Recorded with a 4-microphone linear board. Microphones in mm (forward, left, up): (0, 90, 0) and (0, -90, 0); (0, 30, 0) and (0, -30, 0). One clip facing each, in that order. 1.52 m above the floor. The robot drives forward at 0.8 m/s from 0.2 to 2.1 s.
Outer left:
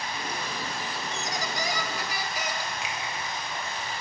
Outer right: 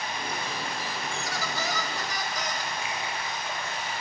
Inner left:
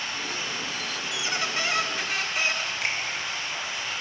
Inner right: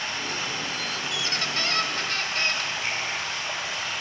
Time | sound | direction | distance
0.0 | running water | 60° right (ahead or behind) | 5.5 m
1.1 | a squeak | 20° left (ahead or behind) | 0.5 m
2.8 | a finger snap | 85° left | 2.5 m